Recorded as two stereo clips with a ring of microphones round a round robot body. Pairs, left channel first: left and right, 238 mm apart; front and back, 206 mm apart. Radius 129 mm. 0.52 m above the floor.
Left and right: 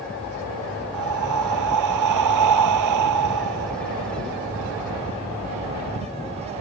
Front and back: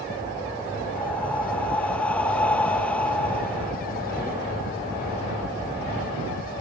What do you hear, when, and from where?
0.9 s breathing: 85° right